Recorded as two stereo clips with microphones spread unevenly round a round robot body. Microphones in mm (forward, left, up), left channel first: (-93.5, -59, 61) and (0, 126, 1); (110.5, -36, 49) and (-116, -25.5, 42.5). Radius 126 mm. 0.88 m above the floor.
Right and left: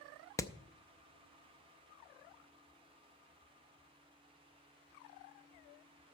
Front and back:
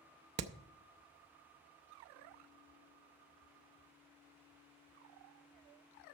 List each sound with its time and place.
0.4 s hammering: 165° left, 0.6 m